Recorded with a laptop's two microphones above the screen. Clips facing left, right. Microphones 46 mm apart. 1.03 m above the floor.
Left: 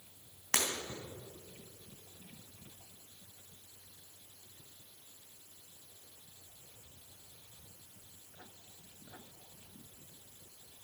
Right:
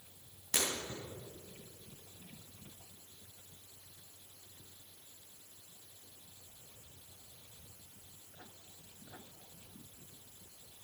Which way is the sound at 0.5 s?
70° left (ahead or behind).